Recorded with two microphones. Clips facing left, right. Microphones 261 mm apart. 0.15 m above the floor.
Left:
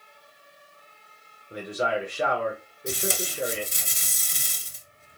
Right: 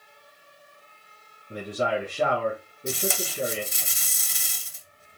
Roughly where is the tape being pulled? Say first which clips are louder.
Right 1 dB; left.